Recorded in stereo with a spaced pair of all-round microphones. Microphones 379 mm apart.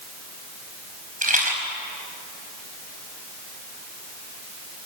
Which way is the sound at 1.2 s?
20° right (ahead or behind).